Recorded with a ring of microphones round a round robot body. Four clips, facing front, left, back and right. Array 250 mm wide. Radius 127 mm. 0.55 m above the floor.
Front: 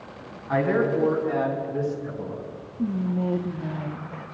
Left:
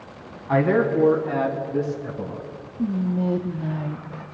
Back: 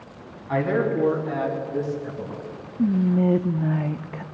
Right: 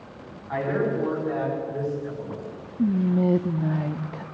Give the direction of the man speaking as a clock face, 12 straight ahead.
9 o'clock.